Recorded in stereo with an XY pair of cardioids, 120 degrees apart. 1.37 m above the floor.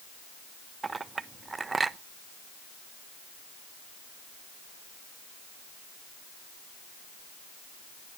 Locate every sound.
0.8 s a clink: 25° right, 0.9 m